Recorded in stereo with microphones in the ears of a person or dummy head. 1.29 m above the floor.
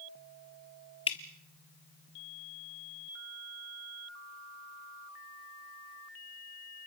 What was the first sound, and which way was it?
Dripping, 30° left (ahead or behind).